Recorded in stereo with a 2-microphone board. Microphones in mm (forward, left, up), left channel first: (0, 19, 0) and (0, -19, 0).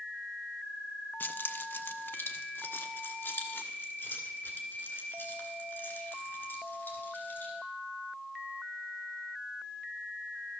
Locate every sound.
1.2 s keys jangling: 60° left (ahead or behind), 0.6 m